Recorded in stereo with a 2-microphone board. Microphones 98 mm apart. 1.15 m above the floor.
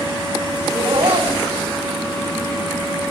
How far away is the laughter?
About 8 m.